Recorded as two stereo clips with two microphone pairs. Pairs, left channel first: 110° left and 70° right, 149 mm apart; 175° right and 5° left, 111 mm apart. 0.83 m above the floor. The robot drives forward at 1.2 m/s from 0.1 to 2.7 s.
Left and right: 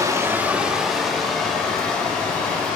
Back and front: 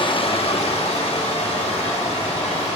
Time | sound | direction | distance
0.0 | running water | 135° right | 1.0 m